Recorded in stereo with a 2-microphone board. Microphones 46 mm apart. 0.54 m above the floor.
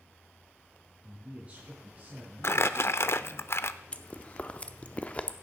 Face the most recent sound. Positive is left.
turn(degrees=30)  # may be behind; listen again after turning